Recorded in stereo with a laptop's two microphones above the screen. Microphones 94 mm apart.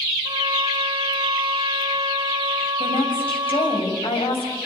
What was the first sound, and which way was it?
A trumpet, 55° right (ahead or behind).